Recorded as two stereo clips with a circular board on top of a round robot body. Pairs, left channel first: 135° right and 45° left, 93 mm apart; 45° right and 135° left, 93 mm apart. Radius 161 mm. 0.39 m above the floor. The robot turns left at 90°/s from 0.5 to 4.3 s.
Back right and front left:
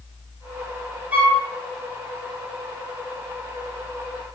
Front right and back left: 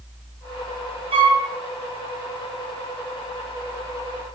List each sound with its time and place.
1.1 s a flute: 120° left, 4 m; by 1.4 s 95° left, 4 m